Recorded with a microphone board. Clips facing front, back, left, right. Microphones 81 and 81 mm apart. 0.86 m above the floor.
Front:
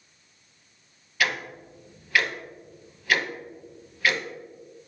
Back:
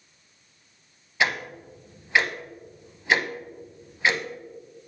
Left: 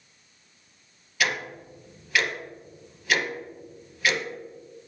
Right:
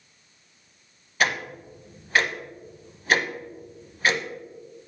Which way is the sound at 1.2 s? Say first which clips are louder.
Back 2 dB, right 3 dB; 125° right.